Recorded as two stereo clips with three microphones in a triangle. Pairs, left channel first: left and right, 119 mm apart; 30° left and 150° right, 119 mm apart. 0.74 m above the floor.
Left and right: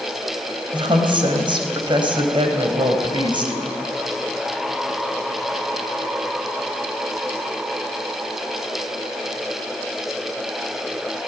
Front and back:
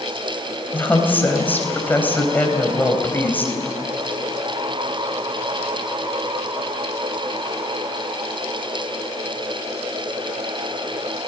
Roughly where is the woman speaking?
Ahead right.